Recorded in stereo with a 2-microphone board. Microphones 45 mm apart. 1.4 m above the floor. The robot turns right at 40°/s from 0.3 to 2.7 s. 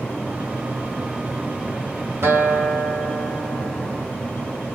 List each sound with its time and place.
2.2 s a guitar: 90° right, 2 m; by 4.1 s 70° right (ahead or behind), 2 m